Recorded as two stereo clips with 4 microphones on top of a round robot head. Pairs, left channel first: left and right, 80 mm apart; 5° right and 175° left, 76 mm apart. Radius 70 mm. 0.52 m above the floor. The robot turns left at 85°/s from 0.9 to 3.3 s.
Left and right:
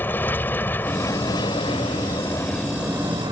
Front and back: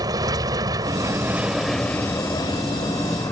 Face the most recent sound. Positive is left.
turn(degrees=-50)